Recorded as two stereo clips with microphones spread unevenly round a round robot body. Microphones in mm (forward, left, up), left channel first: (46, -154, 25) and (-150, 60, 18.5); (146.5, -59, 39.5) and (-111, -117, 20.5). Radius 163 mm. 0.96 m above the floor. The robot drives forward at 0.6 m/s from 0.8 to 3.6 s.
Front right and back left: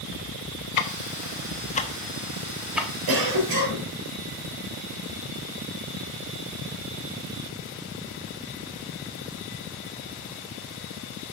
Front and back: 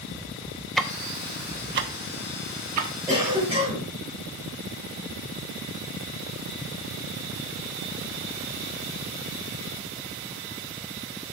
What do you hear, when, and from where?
0.8 s ticking: 75° right, 0.8 m; by 2.9 s 140° right, 1.3 m
3.1 s a cough: 115° left, 3.5 m